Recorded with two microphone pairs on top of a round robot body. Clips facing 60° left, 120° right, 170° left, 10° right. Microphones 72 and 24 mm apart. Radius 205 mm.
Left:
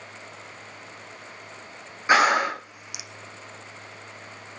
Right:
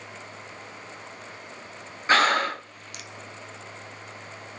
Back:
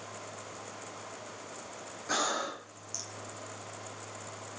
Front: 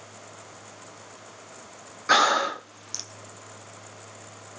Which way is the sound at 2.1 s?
20° right.